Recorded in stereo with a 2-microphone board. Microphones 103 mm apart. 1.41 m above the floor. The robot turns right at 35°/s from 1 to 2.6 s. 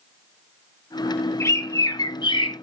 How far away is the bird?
About 0.9 m.